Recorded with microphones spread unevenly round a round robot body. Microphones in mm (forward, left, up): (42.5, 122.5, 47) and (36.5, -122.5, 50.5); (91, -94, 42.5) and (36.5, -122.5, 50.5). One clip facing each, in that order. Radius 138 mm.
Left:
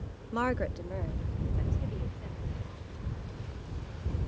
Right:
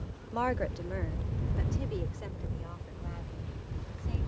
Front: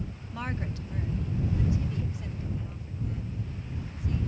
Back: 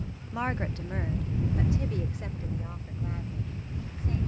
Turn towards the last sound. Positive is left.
turn(degrees=-110)